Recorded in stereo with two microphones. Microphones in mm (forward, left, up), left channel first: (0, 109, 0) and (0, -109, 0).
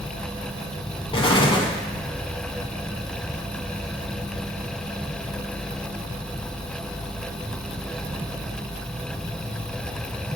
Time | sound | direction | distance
1.1 | an explosion | 25° left (ahead or behind) | 0.9 m